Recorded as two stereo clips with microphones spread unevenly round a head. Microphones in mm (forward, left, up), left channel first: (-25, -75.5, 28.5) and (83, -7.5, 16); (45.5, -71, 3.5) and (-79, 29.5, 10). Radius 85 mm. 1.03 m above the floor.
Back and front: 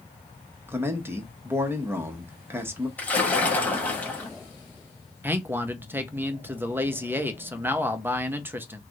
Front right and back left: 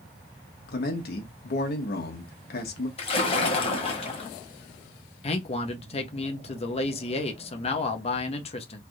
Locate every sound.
0.7 s a man speaking: 35° right, 1.0 m
3.0 s a splash: 80° right, 1.1 m
5.2 s a man speaking: 25° right, 0.7 m